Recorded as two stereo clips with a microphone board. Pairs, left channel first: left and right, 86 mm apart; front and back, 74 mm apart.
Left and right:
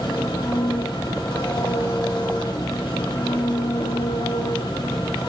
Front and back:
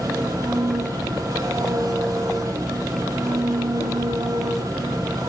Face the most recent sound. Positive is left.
turn(degrees=130)